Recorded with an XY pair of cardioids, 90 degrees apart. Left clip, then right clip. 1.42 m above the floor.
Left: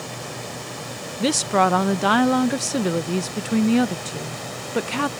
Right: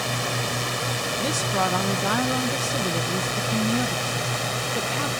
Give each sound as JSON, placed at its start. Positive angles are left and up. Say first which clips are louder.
{"t": 0.0, "sound": "a drone", "louder": "right 7 dB", "azimuth_deg": -65}
{"t": 1.2, "sound": "a woman speaking", "louder": "left 7 dB", "azimuth_deg": 65}